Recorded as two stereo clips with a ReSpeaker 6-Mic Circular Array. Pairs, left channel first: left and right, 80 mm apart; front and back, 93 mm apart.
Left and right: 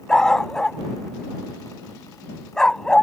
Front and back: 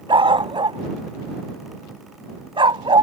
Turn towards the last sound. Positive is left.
turn(degrees=170)